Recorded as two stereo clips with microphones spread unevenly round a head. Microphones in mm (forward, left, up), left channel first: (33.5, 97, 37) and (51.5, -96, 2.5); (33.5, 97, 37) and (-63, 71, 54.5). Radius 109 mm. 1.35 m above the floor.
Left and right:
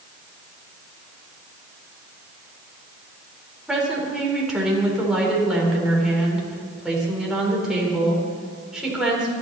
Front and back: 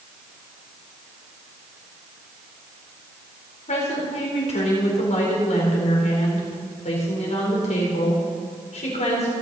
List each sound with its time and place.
3.7 s a woman speaking: 5° left, 4.5 m